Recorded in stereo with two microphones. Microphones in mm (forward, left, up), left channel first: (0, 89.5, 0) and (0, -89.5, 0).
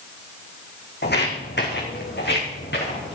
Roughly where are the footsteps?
Left.